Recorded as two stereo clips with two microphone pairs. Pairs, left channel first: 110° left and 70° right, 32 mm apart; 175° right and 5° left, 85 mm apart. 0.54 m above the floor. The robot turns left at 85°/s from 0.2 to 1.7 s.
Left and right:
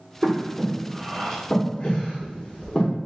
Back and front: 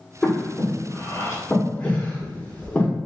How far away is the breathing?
About 0.8 m.